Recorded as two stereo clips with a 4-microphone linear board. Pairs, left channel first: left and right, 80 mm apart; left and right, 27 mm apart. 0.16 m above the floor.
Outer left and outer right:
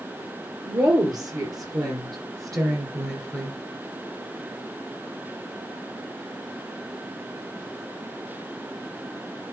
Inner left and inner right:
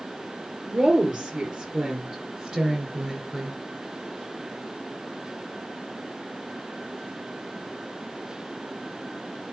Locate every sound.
0.7 s a woman speaking: 50° right (ahead or behind), 3.5 m; by 3.6 s 35° right (ahead or behind), 2 m